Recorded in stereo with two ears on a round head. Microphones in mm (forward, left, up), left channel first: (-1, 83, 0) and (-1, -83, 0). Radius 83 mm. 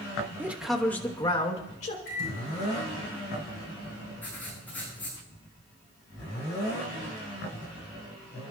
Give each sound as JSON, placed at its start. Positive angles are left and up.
{"t": 0.4, "sound": "a man speaking", "side_deg": -10, "distance_m": 1.3}
{"t": 2.0, "sound": "a microwave", "side_deg": 50, "distance_m": 10.0}
{"t": 4.2, "sound": "writing", "side_deg": 10, "distance_m": 7.0}